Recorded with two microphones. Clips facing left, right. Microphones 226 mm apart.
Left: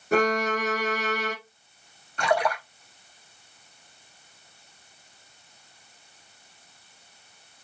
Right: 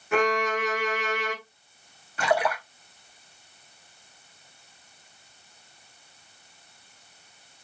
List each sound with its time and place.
0.1 s a violin: 40° left (ahead or behind), 1.1 m
2.2 s a splash: 5° right (ahead or behind), 1.1 m